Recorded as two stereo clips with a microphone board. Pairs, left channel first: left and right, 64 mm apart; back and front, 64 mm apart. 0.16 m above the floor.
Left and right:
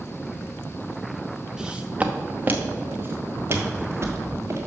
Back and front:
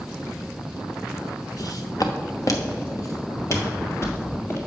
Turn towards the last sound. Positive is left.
turn(degrees=-135)